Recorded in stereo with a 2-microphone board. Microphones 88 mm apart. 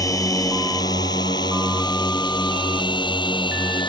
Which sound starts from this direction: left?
A drone, at 0.0 s.